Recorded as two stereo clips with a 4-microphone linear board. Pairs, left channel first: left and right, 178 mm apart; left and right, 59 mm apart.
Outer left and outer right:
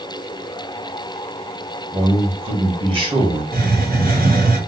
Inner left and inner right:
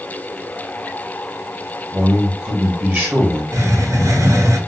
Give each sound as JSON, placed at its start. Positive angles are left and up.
{"t": 1.9, "sound": "a man speaking", "side_deg": -30, "distance_m": 1.1}
{"t": 3.5, "sound": "a hiss", "side_deg": -55, "distance_m": 0.7}